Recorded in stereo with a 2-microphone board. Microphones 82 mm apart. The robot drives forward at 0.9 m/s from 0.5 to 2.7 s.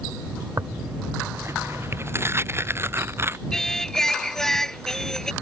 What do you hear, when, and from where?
0.6 s tearing paper: 35° right (ahead or behind); by 3.4 s 30° right (ahead or behind)
3.5 s singing: 5° left (ahead or behind)